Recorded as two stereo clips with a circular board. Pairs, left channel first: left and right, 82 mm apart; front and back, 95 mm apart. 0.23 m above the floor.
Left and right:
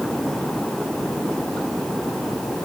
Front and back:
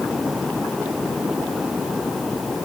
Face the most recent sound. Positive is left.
No sound to turn to.